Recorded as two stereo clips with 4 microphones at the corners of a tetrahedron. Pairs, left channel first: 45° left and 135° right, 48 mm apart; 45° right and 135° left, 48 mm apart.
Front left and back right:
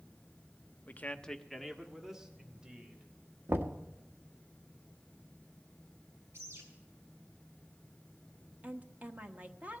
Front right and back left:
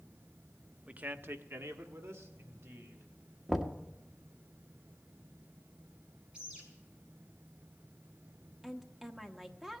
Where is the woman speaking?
150° right, 1.2 m.